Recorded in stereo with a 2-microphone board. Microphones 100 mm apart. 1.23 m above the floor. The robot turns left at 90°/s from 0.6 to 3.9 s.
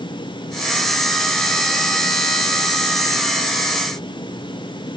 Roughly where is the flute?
I don't hear a flute.